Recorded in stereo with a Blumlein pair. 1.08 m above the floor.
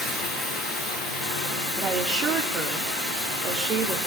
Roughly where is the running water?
Ahead.